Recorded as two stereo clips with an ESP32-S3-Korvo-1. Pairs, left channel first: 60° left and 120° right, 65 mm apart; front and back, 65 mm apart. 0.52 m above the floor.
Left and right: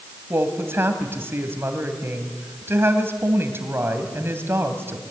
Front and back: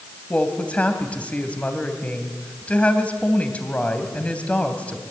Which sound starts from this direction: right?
A woman speaking, at 0.3 s.